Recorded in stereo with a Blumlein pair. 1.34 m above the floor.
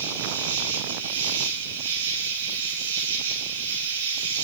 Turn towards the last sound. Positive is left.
turn(degrees=-60)